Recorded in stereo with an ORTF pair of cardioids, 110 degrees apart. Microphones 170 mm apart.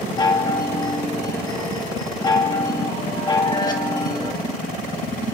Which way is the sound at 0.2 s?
25° left.